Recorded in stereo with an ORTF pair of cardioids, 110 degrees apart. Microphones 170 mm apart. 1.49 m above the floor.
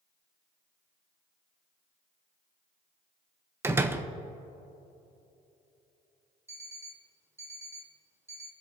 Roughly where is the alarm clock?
Ahead.